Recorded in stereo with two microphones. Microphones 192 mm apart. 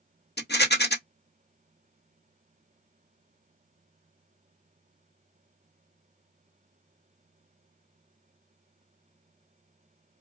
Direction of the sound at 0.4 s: 60° left (ahead or behind).